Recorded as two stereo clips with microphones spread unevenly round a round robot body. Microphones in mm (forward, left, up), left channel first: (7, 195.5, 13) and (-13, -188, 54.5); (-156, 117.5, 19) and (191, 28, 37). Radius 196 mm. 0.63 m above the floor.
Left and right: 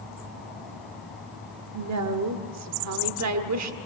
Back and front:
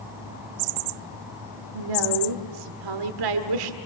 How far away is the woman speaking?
About 1.7 m.